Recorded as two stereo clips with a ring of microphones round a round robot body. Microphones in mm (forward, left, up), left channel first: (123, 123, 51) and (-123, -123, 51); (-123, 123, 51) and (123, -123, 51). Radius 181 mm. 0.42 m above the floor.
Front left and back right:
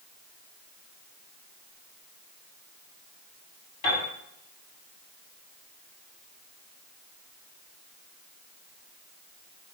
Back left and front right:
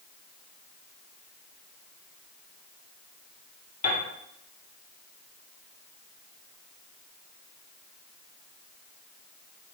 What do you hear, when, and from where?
3.8 s a piano: 60° left, 2 m